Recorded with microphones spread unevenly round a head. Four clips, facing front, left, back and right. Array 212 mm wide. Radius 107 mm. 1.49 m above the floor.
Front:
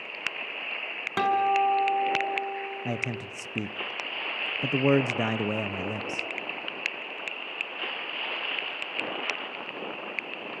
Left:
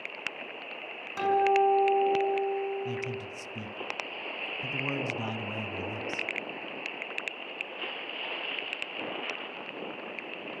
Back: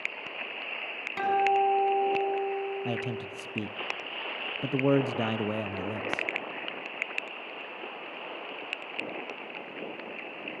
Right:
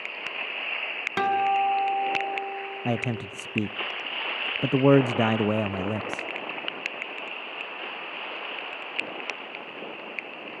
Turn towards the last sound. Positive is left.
turn(degrees=-85)